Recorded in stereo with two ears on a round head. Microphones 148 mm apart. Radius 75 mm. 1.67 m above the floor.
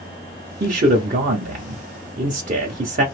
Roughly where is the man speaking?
Right.